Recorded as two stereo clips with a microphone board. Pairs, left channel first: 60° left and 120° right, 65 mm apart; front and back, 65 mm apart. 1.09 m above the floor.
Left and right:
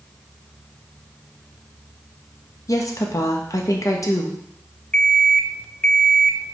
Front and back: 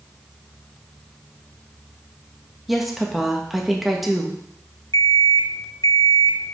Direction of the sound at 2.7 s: 90° left.